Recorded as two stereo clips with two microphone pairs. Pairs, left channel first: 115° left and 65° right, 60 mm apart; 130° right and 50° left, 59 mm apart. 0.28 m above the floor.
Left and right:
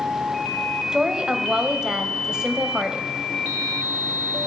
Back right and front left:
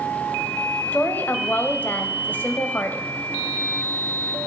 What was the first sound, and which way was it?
A woman speaking, 130° right.